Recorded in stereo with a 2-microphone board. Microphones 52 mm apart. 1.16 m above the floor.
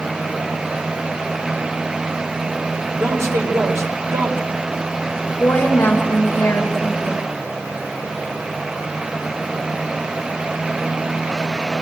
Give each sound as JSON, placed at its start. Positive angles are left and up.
{"t": 3.0, "sound": "a man speaking", "side_deg": -65, "distance_m": 4.0}
{"t": 5.4, "sound": "a woman speaking", "side_deg": 45, "distance_m": 4.5}